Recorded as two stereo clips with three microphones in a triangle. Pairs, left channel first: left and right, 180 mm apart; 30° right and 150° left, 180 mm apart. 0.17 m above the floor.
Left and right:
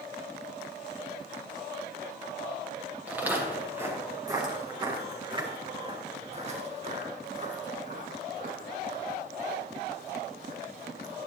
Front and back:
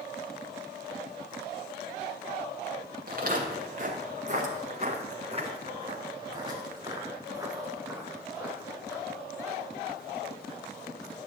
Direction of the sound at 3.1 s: 170° right.